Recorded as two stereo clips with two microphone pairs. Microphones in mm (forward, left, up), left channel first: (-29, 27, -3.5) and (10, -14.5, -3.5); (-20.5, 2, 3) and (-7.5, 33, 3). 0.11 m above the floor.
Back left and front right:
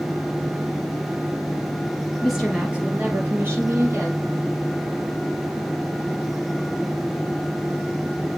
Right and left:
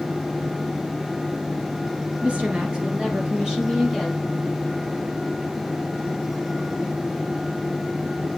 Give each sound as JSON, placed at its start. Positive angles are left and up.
{"t": 2.2, "sound": "a woman speaking", "azimuth_deg": 45, "distance_m": 2.0}